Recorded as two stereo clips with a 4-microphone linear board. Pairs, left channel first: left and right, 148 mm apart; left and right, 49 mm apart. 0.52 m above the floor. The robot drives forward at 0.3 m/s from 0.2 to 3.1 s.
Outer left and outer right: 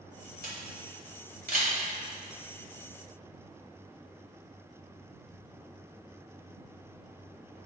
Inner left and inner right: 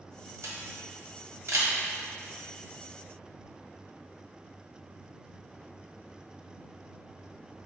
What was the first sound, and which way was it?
A camera shutter, 85° right.